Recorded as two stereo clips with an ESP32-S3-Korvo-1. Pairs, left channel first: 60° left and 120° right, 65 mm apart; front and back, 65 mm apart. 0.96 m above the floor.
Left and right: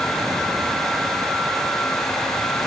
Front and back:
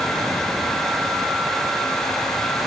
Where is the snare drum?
No snare drum in this recording.